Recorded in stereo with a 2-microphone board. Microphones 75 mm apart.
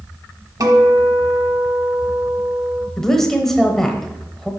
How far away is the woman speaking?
About 0.9 m.